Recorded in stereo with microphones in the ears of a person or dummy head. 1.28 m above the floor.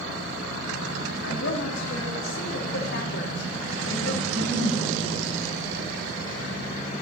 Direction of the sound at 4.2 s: 10° right (ahead or behind).